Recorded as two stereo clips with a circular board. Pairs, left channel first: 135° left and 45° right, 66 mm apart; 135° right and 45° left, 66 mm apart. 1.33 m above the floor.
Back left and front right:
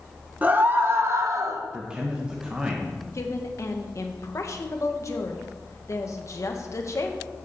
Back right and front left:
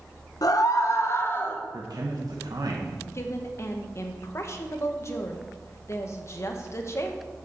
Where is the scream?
110° right, 0.9 m; by 1.6 s 75° right, 1.1 m.